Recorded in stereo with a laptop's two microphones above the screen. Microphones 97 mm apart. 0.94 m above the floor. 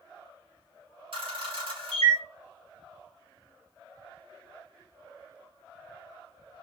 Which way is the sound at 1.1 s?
65° right (ahead or behind).